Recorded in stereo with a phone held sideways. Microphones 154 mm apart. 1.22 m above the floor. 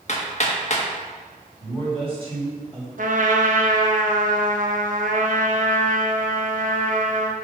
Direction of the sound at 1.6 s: 40° right (ahead or behind).